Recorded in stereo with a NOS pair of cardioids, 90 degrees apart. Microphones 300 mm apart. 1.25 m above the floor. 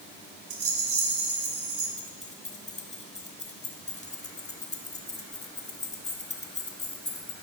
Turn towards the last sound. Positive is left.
turn(degrees=25)